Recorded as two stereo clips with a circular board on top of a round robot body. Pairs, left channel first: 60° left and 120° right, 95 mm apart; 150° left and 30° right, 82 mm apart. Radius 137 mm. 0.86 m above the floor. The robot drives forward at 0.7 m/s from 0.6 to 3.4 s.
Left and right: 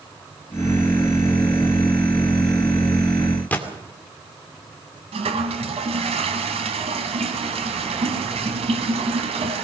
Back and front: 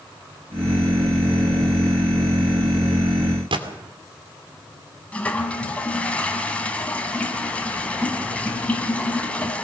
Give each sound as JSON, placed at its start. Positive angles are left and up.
{"t": 3.5, "sound": "a gunshot", "azimuth_deg": -15, "distance_m": 2.5}
{"t": 5.1, "sound": "a toilet flushing", "azimuth_deg": -135, "distance_m": 2.0}